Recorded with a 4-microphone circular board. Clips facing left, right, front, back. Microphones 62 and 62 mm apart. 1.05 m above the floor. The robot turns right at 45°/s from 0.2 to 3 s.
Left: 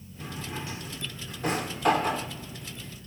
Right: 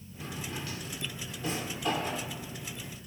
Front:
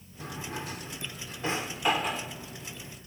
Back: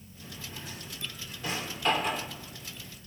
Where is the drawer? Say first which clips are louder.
Left 2 dB, front 7 dB; 5° left, 1.2 m; by 2.3 s 95° left, 1.2 m.